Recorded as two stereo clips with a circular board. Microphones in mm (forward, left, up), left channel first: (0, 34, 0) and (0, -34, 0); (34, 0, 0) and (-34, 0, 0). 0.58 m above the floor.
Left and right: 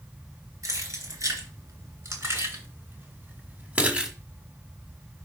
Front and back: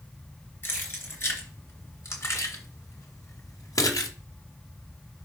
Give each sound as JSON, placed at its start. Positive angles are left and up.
{"t": 0.6, "sound": "keys jangling", "azimuth_deg": -55, "distance_m": 3.0}